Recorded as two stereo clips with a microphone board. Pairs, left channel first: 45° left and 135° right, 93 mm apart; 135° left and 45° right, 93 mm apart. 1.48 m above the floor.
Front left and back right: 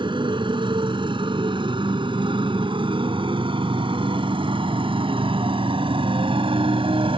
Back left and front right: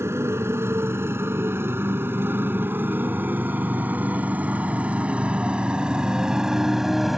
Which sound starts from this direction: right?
A motorcycle, at 0.0 s.